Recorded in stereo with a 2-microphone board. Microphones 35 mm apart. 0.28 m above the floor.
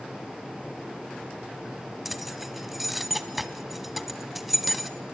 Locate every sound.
2.0 s keys jangling: 5° right (ahead or behind), 1.4 m